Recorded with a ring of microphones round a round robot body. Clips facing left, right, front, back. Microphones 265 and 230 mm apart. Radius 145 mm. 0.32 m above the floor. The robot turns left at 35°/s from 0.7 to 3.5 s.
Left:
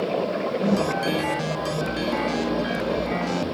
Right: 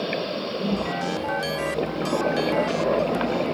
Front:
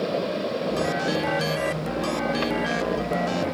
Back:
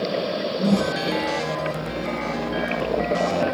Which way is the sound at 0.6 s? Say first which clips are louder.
Left 4 dB, back 8 dB; 165° left.